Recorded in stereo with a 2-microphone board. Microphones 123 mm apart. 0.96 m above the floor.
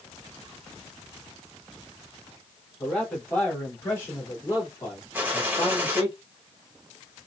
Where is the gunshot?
15° right (ahead or behind), 1.1 m.